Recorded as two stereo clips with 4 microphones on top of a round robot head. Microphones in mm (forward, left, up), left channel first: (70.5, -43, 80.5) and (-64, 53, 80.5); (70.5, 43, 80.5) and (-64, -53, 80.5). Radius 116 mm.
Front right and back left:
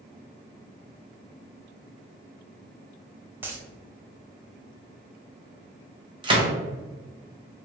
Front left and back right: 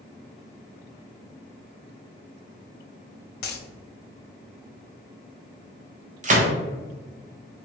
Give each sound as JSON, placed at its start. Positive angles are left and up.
{"t": 3.4, "sound": "a dropped coin", "azimuth_deg": 65, "distance_m": 0.5}
{"t": 6.2, "sound": "a gunshot", "azimuth_deg": -165, "distance_m": 0.9}